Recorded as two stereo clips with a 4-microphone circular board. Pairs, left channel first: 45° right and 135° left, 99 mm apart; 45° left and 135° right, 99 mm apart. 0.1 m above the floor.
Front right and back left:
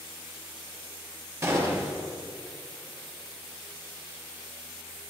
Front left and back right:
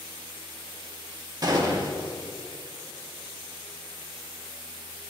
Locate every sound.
1.4 s a gunshot: 170° right, 1.7 m